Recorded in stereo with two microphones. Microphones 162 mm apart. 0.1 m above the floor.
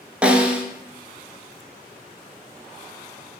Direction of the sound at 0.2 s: 10° right (ahead or behind).